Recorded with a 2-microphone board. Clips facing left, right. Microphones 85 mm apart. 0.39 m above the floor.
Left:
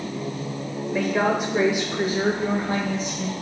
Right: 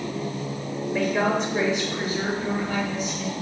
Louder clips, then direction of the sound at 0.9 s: Left 1 dB; centre (ahead or behind).